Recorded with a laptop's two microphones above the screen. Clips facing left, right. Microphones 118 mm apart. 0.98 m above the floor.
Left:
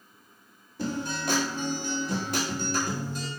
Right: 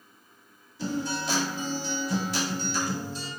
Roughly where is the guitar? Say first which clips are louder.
Right 1 dB; left.